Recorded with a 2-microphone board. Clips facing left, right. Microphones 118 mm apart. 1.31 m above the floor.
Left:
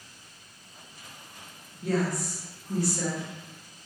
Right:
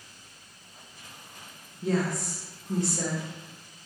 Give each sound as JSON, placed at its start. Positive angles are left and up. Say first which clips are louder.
{"t": 1.8, "sound": "a woman speaking", "louder": "even", "side_deg": -25, "distance_m": 0.8}